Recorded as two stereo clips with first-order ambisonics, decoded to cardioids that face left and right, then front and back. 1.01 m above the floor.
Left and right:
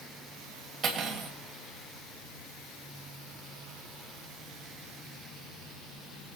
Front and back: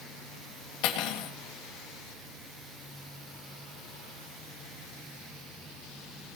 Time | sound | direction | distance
0.8 | cutlery clinking | 25° right | 3 m